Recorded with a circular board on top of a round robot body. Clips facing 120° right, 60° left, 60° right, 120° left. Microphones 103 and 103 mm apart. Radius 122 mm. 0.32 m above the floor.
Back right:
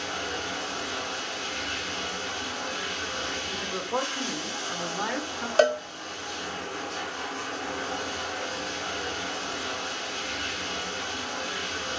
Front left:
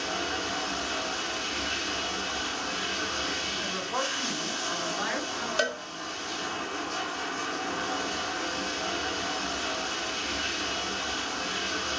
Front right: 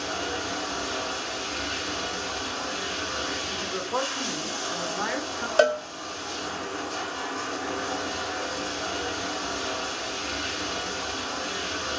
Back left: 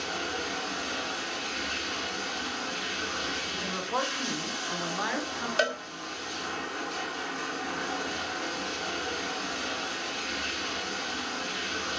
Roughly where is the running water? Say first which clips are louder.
Front left 1 dB, front right 3 dB; ahead.